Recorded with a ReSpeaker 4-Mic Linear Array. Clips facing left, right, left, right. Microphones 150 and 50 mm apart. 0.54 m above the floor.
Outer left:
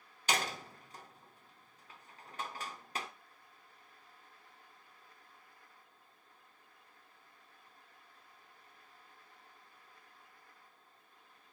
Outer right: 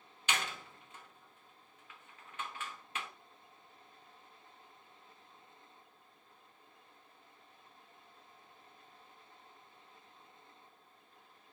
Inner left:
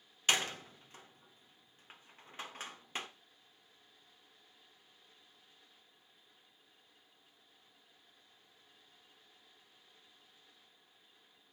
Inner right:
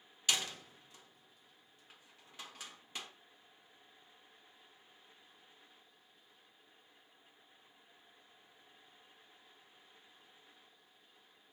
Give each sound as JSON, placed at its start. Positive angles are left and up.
{"t": 0.3, "sound": "a door slam", "side_deg": 40, "distance_m": 0.8}